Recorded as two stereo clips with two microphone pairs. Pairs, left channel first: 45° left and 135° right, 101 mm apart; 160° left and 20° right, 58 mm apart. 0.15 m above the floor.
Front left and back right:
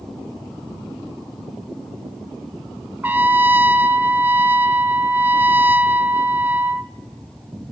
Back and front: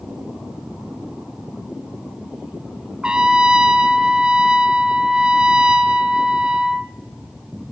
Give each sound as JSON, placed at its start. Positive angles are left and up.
{"t": 3.0, "sound": "a trumpet", "azimuth_deg": -85, "distance_m": 0.6}